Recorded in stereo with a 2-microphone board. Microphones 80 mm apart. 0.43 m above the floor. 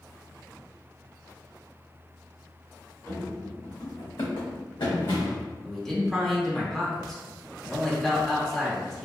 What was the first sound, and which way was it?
Running footsteps, 35° left (ahead or behind).